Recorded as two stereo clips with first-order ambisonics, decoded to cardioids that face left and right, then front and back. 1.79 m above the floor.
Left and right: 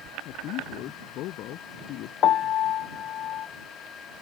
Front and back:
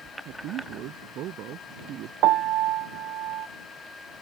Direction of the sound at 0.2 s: 135° left.